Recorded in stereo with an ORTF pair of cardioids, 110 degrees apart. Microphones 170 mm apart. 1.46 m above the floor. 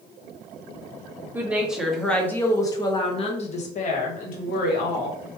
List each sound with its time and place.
1.3 s a woman speaking: 10° right, 1.4 m; by 5.2 s 65° left, 1.8 m